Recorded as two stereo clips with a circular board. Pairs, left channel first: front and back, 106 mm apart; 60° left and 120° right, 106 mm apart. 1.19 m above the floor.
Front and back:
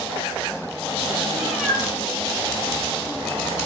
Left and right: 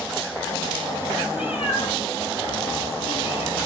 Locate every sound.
1.3 s a cat meowing: 90° left, 5.5 m; by 3.6 s 70° left, 8 m